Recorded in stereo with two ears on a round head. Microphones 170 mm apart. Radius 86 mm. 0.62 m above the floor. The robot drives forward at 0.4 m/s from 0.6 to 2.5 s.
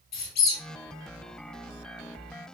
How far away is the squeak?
About 0.9 m.